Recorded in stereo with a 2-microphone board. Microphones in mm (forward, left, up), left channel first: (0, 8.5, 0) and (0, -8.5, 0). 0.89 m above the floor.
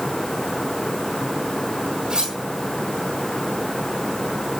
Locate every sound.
2.1 s cutlery clinking: 60° right (ahead or behind), 2.5 m